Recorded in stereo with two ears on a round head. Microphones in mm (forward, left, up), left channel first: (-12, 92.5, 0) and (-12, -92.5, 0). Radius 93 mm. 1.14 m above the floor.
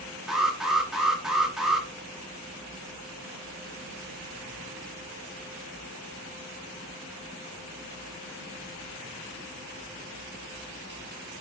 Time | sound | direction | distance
0.3 | an alarm | centre (ahead or behind) | 1.8 m